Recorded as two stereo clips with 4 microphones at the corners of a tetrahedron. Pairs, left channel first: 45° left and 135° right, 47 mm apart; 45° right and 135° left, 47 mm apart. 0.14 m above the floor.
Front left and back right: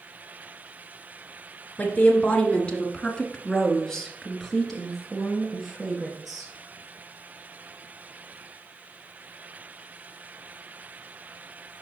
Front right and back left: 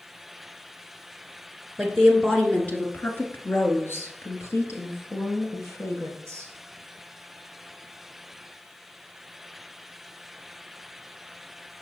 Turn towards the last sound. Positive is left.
turn(degrees=-50)